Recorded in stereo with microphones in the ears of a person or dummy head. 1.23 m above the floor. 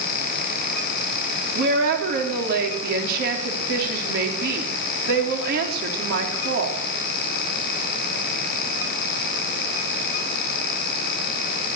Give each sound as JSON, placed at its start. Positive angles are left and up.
{"t": 1.5, "sound": "a woman speaking", "side_deg": -55, "distance_m": 3.5}